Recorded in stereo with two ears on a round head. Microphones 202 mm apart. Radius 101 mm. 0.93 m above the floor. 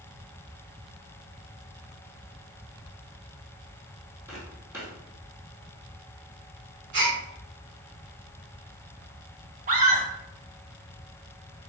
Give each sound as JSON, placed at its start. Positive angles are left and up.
{"t": 4.3, "sound": "footsteps", "side_deg": -10, "distance_m": 1.7}
{"t": 6.9, "sound": "a gasp", "side_deg": -55, "distance_m": 1.5}
{"t": 9.7, "sound": "a scream", "side_deg": -35, "distance_m": 0.9}